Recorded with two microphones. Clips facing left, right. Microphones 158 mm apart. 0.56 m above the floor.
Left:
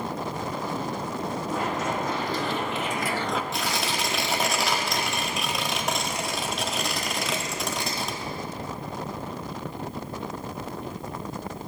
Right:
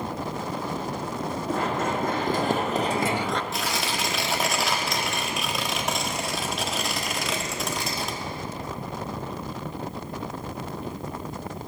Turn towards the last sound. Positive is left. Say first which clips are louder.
# even
turn(degrees=0)  # may be behind; listen again after turning